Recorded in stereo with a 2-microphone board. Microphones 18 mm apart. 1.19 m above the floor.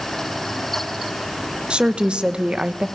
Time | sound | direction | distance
1.7 | a woman speaking | 70° right (ahead or behind) | 1.1 m